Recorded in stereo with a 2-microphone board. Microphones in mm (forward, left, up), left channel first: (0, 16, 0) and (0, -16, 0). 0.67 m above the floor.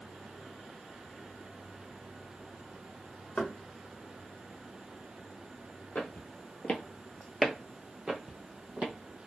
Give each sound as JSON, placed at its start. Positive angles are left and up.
{"t": 3.4, "sound": "knocking", "side_deg": 45, "distance_m": 0.7}
{"t": 6.0, "sound": "footsteps", "side_deg": 55, "distance_m": 1.0}